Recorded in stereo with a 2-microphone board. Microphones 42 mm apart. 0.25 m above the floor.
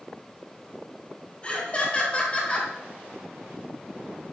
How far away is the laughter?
About 1.7 m.